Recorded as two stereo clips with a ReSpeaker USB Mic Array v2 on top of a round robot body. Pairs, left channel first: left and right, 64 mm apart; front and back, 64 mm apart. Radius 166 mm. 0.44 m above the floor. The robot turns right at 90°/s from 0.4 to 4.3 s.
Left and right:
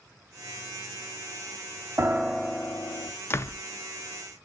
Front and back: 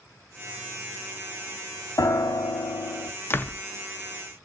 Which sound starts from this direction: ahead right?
A piano, at 2.0 s.